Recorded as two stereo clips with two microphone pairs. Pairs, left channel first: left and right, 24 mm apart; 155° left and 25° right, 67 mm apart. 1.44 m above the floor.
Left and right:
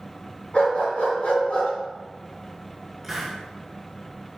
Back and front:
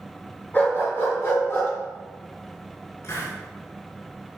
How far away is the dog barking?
About 3.5 m.